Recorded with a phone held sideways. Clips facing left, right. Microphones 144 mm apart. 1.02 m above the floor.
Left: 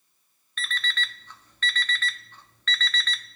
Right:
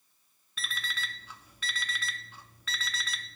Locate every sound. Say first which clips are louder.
0.6 s an alarm clock: left 6 dB; 10° right (ahead or behind), 0.6 m